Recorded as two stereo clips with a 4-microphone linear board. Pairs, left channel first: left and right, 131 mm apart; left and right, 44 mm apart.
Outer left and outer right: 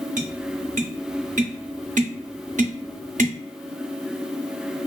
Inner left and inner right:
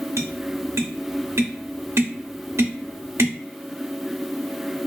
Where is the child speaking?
No child speaking in this recording.